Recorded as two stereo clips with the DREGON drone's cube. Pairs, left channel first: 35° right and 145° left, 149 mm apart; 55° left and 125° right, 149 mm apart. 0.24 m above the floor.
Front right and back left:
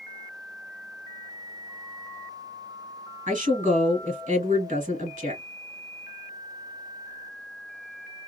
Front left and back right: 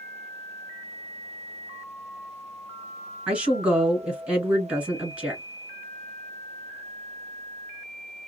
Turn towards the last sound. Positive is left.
turn(degrees=155)